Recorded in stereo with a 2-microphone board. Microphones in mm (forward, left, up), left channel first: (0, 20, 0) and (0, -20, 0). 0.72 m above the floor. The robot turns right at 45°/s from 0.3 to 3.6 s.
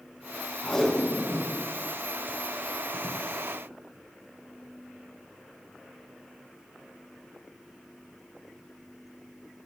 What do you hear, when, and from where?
0.6 s tape being pulled: 20° left (ahead or behind), 5 m; by 3.2 s 85° right, 5 m